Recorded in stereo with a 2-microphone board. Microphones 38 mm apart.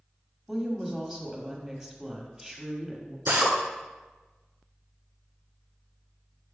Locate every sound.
0.5 s a woman speaking: 10° right (ahead or behind), 1.3 m
3.3 s a drill: 60° right (ahead or behind), 1.5 m